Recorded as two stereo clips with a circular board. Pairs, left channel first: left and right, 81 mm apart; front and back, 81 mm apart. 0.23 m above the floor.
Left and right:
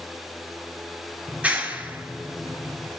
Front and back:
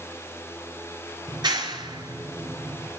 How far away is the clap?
About 4 m.